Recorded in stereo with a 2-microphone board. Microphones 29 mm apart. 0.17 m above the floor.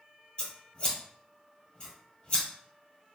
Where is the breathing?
No breathing in this recording.